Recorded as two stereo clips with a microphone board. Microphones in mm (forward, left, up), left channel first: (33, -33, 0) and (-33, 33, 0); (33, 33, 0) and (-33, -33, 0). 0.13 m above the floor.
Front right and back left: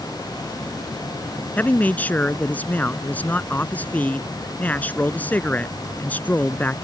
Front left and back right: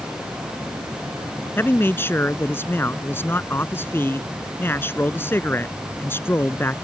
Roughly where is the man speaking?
Ahead.